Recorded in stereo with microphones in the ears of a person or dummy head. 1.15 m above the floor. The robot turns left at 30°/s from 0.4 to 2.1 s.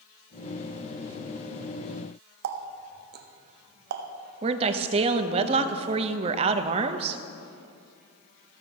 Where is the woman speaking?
30° right (ahead or behind), 0.6 m.